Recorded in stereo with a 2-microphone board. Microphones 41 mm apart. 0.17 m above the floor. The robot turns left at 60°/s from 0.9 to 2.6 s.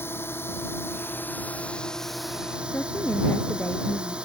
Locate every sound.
0.0 s a drone: 75° left; by 4.3 s 30° right
2.7 s a woman speaking: 65° left (ahead or behind)